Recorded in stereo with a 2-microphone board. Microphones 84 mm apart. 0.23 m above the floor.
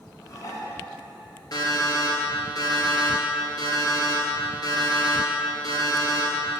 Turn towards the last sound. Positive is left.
turn(degrees=55)  # may be behind; listen again after turning